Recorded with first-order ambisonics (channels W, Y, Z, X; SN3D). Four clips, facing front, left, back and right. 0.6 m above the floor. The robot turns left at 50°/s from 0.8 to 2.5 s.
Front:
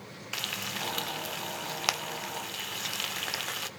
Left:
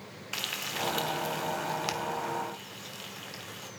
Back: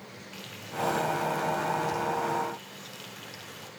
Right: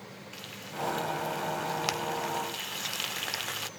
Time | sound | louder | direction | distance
0.3 | frying | left 7 dB, front 4 dB | 40° left | 0.9 m